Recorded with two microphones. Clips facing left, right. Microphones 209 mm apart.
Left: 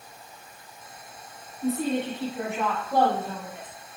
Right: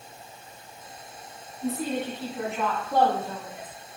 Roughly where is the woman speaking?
Left.